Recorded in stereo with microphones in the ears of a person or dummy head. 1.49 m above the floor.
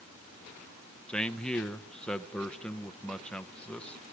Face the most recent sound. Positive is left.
turn(degrees=5)  # may be behind; listen again after turning